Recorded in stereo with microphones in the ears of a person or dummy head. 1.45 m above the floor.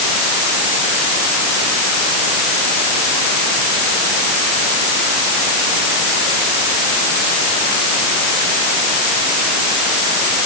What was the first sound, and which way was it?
Only background noise.